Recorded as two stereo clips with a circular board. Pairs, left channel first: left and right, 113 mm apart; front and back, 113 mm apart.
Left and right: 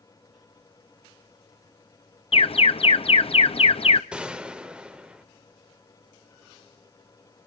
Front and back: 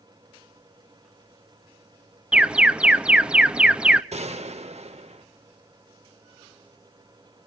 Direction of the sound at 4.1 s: 170° right.